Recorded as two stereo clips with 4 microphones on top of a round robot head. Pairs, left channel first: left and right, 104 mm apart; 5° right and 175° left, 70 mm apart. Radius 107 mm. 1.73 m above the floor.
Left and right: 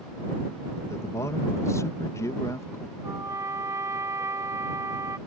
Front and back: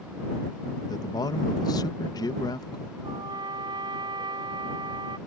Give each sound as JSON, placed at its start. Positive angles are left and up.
{"t": 0.9, "sound": "a man speaking", "azimuth_deg": 25}
{"t": 3.0, "sound": "a trumpet", "azimuth_deg": -155}